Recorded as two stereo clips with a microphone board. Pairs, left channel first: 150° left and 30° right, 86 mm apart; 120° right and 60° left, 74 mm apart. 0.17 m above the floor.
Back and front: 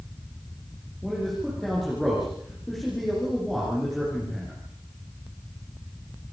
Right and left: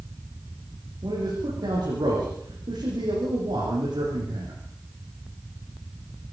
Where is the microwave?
I don't hear a microwave.